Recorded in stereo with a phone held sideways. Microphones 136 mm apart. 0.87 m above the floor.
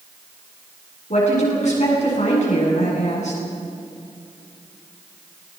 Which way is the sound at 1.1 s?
60° left (ahead or behind).